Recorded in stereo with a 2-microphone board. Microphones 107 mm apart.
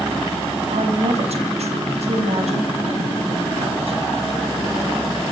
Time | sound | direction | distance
0.7 | a woman speaking | 75° right (ahead or behind) | 4.5 m